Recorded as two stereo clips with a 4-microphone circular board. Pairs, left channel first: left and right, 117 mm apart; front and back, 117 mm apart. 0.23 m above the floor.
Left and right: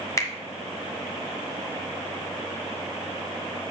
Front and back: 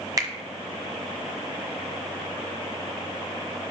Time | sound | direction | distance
0.2 | a finger snap | 140° left | 1.2 m